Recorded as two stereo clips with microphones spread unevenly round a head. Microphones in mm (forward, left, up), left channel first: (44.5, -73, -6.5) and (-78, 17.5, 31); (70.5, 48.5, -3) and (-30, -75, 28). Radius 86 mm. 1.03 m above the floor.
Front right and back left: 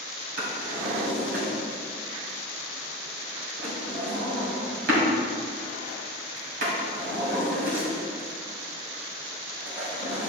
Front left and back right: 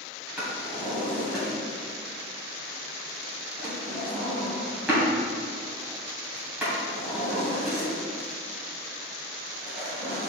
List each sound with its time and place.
0.4 s a drawer: 150° left, 2.5 m